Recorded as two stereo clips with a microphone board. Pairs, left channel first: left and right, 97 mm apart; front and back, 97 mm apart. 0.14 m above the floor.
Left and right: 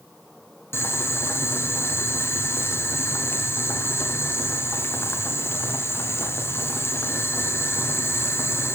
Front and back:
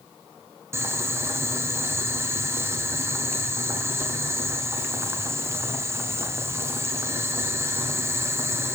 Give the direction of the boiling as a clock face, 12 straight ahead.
7 o'clock.